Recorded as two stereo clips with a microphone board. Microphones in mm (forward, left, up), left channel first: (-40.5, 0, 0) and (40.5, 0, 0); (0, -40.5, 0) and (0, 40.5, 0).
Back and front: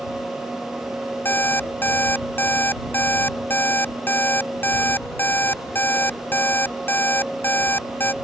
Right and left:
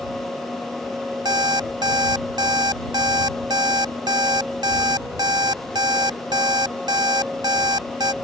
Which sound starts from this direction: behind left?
An alarm clock, at 1.2 s.